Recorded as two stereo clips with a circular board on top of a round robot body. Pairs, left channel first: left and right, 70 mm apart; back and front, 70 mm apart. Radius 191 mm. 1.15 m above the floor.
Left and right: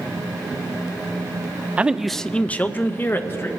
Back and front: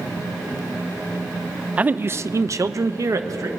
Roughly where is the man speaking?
Ahead right.